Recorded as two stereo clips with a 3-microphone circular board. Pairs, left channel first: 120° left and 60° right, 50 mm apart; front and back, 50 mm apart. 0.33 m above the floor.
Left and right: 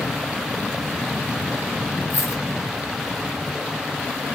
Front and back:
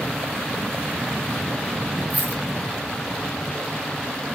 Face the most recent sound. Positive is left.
turn(degrees=125)